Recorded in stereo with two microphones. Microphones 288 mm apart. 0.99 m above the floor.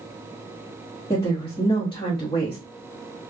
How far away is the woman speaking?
About 1.3 m.